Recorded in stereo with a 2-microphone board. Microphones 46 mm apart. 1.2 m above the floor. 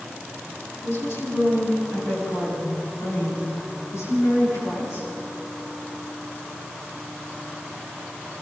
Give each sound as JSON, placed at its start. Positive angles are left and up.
{"t": 0.8, "sound": "a woman speaking", "side_deg": 55, "distance_m": 8.0}